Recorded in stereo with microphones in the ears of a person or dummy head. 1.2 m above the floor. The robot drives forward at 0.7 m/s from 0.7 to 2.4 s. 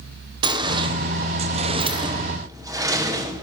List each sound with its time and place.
0.4 s a sliding door: 20° right (ahead or behind), 0.7 m; by 3.4 s 15° right (ahead or behind), 0.9 m